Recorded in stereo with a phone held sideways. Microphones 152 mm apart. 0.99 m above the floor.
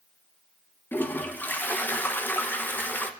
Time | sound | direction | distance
0.9 | a toilet flushing | 10° left (ahead or behind) | 0.6 m